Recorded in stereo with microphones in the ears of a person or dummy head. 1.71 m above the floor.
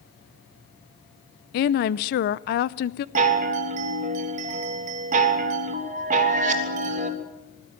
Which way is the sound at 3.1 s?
40° right (ahead or behind).